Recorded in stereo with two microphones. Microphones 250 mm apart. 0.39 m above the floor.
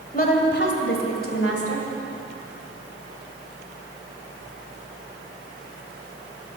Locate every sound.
0.1 s a woman speaking: 35° left (ahead or behind), 1.7 m; by 1.9 s 65° left (ahead or behind), 2.5 m